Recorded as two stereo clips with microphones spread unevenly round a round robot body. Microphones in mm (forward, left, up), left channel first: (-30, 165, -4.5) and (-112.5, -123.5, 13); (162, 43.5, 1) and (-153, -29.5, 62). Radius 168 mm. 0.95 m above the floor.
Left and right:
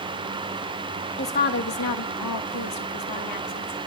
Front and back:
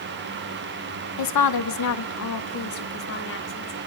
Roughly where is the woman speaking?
Ahead.